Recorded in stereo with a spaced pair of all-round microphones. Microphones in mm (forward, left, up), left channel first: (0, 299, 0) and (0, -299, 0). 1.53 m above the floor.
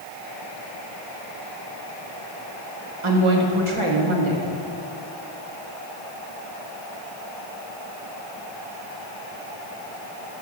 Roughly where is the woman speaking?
Right.